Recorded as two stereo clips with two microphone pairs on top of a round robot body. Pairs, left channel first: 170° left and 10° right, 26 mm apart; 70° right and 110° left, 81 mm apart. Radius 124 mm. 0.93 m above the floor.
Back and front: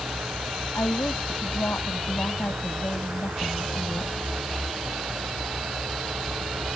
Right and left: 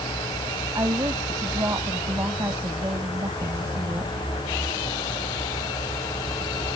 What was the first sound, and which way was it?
A woman speaking, 165° left.